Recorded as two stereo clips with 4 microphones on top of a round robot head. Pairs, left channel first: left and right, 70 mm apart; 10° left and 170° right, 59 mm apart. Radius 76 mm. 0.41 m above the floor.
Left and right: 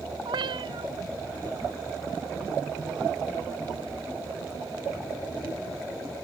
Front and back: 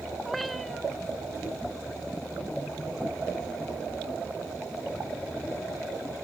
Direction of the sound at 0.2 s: 80° right.